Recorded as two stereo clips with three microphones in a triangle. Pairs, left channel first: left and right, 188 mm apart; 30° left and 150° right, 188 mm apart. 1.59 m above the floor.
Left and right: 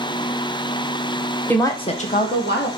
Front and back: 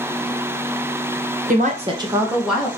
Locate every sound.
1.5 s a woman speaking: 170° left, 1.1 m; by 2.7 s 115° left, 1.6 m